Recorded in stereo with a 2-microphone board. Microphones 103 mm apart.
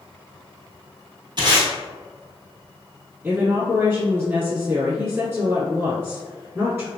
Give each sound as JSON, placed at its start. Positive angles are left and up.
{"t": 1.4, "sound": "tape being pulled", "side_deg": -50, "distance_m": 1.1}
{"t": 3.2, "sound": "a woman speaking", "side_deg": -25, "distance_m": 1.5}